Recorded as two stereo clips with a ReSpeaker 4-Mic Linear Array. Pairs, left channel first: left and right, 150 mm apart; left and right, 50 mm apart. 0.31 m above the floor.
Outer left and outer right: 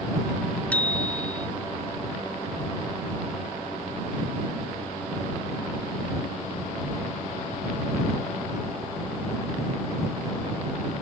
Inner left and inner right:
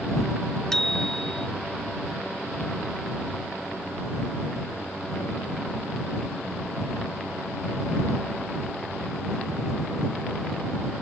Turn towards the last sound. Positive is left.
turn(degrees=10)  # may be behind; listen again after turning